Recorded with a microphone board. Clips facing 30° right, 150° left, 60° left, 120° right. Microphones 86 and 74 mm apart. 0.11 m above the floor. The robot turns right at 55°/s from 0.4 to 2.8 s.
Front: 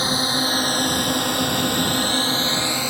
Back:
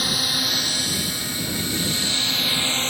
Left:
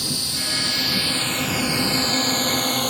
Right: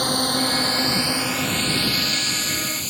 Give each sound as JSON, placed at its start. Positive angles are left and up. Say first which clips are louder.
{"t": 0.0, "sound": "a drone", "louder": "front 5 dB, right 9 dB", "azimuth_deg": -90}